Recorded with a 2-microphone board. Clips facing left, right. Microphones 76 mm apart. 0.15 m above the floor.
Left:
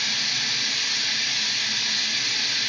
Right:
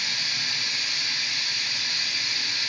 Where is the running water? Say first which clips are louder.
Left 2 dB; 70° left (ahead or behind), 1.6 m.